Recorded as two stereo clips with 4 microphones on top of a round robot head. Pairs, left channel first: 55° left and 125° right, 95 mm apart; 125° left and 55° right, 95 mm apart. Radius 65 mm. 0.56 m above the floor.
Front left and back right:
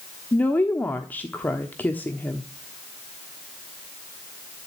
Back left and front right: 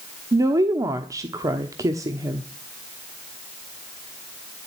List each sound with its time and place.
0.3 s a woman speaking: 10° right, 1.1 m